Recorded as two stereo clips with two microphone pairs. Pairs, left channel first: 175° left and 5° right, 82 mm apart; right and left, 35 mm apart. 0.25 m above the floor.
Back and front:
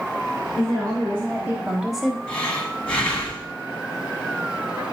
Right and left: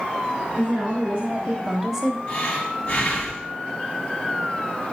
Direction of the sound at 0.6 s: 50° left.